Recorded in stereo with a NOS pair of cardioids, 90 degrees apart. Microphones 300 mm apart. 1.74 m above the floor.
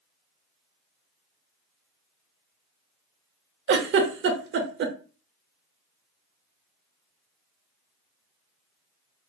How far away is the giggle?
About 0.7 m.